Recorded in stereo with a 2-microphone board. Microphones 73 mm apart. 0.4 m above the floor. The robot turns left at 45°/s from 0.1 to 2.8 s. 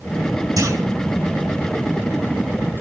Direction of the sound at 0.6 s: 55° right (ahead or behind).